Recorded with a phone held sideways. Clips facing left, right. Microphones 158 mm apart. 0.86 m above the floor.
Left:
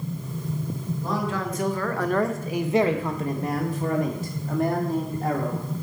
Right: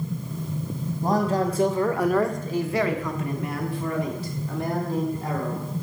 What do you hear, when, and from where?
1.0 s a man speaking: 45° right (ahead or behind), 1.0 m; by 5.7 s 55° left (ahead or behind), 2.5 m